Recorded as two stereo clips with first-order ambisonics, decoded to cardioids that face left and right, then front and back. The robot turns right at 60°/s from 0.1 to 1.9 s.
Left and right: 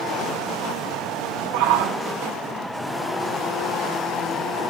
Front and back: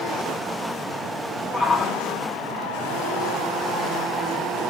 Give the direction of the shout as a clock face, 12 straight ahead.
2 o'clock.